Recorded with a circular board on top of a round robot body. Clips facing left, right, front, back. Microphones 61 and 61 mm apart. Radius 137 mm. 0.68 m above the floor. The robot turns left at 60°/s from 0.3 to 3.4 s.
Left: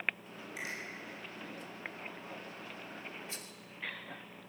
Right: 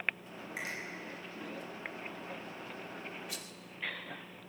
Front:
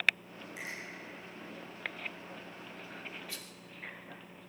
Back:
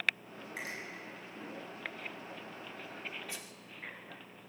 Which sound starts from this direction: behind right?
A finger snap, at 0.6 s.